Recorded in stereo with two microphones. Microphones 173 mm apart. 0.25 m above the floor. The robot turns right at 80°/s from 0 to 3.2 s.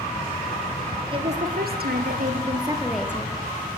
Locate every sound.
1.1 s a woman speaking: 150° right, 4 m; by 3.4 s 20° left, 4 m